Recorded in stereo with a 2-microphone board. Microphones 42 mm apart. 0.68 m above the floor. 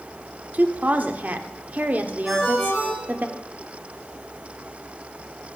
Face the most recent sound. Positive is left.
turn(degrees=-5)  # may be behind; listen again after turning